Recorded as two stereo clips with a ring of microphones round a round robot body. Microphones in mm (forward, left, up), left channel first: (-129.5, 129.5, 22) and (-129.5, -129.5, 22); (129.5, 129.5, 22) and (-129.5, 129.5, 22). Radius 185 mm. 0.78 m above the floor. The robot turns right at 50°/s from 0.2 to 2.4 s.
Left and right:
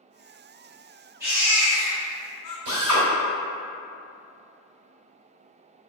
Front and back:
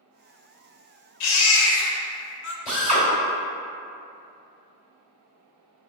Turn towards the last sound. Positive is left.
turn(degrees=-70)